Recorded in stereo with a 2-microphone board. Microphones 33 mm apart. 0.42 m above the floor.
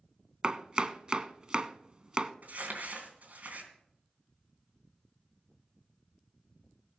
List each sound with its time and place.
0.4 s chopping: 30° right (ahead or behind), 0.6 m
2.4 s crumpling: 55° right (ahead or behind), 3 m